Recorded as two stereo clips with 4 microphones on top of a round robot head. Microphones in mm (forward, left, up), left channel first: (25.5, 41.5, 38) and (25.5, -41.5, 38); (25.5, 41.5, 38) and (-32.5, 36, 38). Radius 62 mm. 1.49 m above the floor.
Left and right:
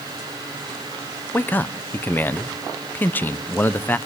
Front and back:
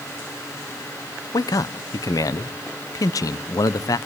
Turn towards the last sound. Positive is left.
turn(degrees=25)